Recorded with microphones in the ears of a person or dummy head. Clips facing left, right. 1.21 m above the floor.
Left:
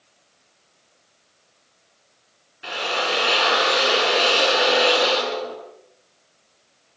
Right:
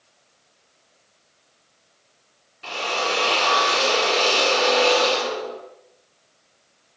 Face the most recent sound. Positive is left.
turn(degrees=5)  # may be behind; listen again after turning